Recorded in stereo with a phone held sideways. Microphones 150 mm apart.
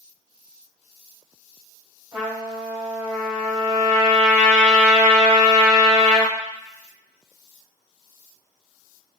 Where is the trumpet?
20° right (ahead or behind), 1.8 m.